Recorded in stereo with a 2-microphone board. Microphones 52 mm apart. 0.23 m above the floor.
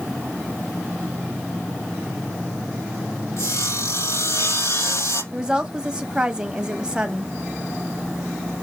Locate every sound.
3.4 s sawing: 80° left, 4.5 m
5.3 s a woman speaking: 15° right (ahead or behind), 1.3 m